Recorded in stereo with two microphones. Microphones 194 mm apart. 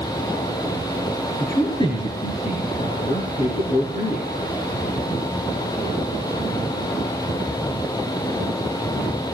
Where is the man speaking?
15° left (ahead or behind), 2.5 m; by 4.2 s 45° left (ahead or behind), 6 m.